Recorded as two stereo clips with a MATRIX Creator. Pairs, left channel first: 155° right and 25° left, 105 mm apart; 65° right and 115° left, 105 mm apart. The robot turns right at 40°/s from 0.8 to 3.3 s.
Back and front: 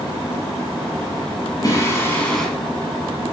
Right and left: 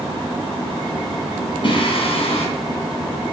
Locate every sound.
1.6 s singing: 105° right, 2.5 m; by 2.5 s 70° right, 2.5 m